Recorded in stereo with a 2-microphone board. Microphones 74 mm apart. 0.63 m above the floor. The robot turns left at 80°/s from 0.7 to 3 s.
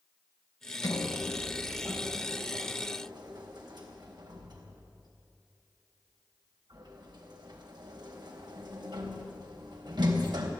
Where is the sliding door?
70° left (ahead or behind), 3.5 m; by 10.5 s 75° right (ahead or behind), 3.5 m.